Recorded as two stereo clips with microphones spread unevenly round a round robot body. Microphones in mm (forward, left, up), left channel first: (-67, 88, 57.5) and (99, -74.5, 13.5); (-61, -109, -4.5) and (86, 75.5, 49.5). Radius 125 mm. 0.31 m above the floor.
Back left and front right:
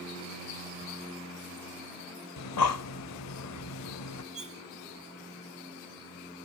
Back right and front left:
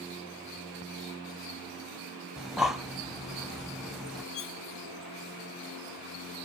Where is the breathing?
145° left, 0.7 m.